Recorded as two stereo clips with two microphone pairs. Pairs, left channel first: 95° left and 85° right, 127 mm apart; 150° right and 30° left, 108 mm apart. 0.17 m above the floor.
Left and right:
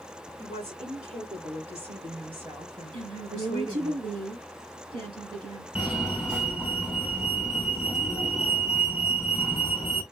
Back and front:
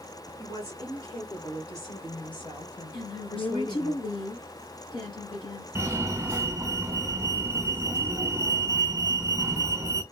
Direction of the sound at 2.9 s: 120° right.